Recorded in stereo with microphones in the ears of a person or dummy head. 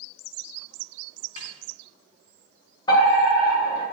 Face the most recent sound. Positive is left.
turn(degrees=25)  # may be behind; listen again after turning